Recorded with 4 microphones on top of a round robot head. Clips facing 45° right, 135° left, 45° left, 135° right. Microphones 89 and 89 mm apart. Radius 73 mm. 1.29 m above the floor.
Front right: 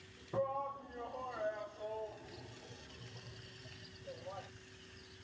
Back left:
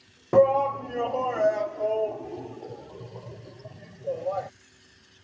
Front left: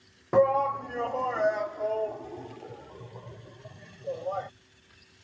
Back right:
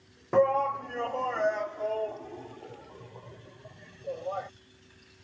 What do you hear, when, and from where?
0.3 s a shout: 130° left; by 4.5 s 125° left